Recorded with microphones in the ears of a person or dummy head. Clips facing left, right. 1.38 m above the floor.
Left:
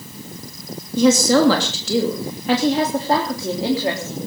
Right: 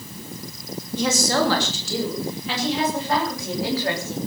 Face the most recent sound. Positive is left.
turn(degrees=15)  # may be behind; listen again after turning